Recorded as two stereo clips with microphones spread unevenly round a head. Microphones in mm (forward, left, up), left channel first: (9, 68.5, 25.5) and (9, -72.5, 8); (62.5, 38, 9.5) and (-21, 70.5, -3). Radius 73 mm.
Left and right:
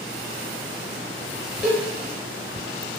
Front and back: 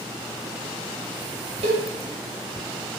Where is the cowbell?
175° left, 0.6 m.